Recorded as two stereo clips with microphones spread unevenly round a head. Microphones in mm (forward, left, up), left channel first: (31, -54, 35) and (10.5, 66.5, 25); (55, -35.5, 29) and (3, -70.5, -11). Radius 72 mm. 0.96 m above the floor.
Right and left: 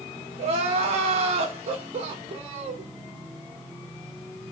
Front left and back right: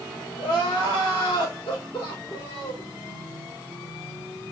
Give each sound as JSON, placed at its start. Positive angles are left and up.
{"t": 0.4, "sound": "crying", "azimuth_deg": 65, "distance_m": 4.0}